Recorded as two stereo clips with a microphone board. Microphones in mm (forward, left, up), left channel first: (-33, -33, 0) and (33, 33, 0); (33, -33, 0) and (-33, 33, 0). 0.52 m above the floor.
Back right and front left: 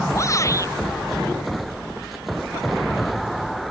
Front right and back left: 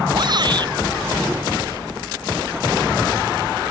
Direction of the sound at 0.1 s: 170° left.